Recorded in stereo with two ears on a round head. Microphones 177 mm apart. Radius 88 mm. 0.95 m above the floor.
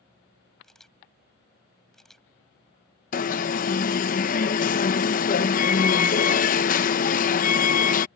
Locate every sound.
0.6 s a camera shutter: 5° left (ahead or behind)
3.1 s an alarm: 45° left (ahead or behind)